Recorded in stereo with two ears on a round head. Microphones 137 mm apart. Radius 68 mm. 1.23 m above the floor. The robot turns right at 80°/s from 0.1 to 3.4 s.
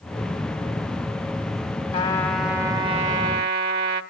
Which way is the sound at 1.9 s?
145° left.